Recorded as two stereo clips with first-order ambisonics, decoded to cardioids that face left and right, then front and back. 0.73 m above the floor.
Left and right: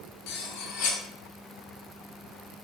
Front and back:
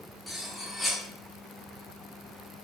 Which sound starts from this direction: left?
Cutlery clinking, at 0.3 s.